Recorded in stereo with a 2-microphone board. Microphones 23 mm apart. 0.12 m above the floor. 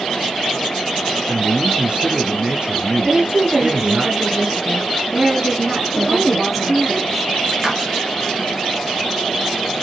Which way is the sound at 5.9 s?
10° right (ahead or behind).